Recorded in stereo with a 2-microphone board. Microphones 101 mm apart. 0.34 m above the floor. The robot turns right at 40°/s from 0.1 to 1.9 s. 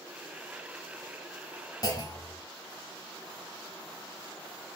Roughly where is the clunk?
Left.